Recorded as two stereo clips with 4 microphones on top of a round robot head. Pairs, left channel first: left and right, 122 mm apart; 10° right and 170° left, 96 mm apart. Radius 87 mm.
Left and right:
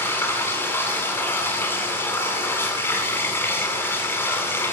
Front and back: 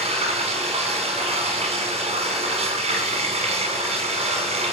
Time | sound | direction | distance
0.0 | running water | 165° left | 8 m